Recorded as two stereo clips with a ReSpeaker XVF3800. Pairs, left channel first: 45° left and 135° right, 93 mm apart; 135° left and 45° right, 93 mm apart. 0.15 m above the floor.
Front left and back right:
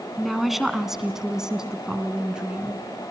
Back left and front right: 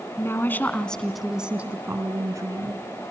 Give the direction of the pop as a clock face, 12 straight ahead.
I don't hear a pop.